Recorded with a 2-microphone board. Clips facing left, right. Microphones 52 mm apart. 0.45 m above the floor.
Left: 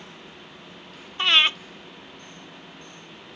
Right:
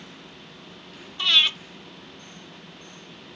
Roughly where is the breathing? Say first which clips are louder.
Left 2 dB; left.